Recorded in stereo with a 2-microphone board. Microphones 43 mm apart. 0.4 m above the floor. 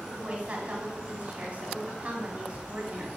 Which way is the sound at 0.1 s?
30° right (ahead or behind).